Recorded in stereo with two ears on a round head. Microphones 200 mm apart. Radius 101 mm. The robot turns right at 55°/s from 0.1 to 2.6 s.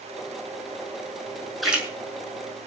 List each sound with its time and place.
1.6 s a splash: centre (ahead or behind), 6.5 m; by 1.9 s 10° right (ahead or behind), 6.5 m